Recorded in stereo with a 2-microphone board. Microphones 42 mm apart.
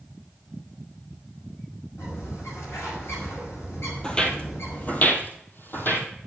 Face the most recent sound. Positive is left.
turn(degrees=55)  # may be behind; listen again after turning